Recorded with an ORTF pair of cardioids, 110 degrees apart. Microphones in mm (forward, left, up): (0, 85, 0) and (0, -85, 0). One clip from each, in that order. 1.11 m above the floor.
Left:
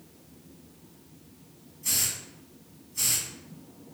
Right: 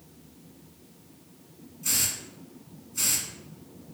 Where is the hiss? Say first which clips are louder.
Right 1 dB; 5° right, 1.3 m.